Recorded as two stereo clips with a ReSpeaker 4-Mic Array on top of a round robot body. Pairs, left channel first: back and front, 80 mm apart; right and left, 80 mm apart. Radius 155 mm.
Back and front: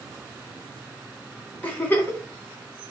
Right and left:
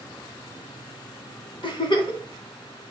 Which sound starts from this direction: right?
A giggle, at 1.6 s.